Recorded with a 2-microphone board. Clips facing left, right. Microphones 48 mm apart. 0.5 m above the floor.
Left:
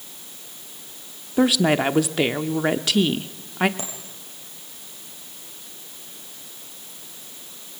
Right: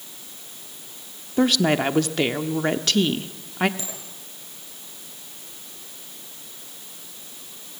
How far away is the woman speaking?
About 1.0 m.